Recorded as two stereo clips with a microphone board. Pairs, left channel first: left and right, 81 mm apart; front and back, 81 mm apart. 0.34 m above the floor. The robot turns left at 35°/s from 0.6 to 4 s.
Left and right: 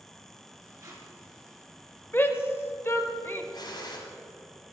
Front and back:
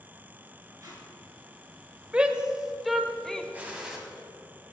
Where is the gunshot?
110° left, 1.8 m; by 4.0 s 95° left, 1.8 m.